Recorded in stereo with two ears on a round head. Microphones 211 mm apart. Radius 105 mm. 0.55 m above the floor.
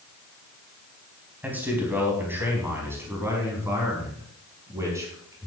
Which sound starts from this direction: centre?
A man speaking, at 1.4 s.